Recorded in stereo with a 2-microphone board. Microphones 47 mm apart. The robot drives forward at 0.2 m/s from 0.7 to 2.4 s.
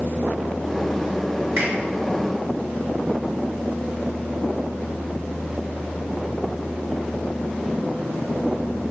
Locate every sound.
1.6 s a finger snap: 50° right (ahead or behind), 1.4 m; by 1.7 s 55° right (ahead or behind), 1.4 m